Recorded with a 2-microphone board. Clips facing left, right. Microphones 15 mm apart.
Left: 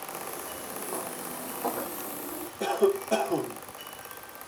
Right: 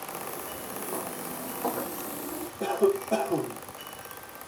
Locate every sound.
0.1 s footsteps: 30° left (ahead or behind), 4 m; by 2.5 s 10° right (ahead or behind), 2.5 m
2.6 s a cough: 70° left (ahead or behind), 3 m